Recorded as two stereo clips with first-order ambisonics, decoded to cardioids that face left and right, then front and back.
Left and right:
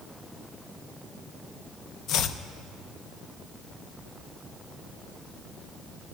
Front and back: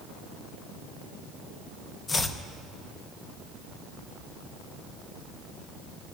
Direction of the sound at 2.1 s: 65° left.